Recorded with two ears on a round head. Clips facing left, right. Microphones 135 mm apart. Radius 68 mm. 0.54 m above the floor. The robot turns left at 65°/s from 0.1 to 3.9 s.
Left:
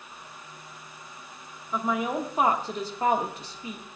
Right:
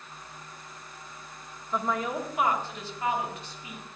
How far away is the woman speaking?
About 1.1 m.